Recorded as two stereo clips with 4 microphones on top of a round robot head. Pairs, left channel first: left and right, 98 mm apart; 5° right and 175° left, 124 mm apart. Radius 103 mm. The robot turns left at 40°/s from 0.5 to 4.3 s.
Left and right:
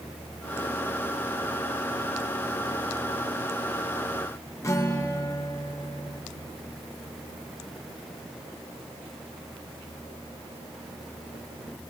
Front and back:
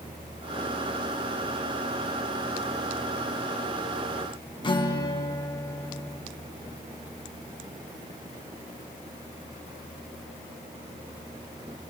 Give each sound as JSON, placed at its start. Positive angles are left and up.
{"t": 4.6, "sound": "a guitar", "azimuth_deg": 35, "distance_m": 1.2}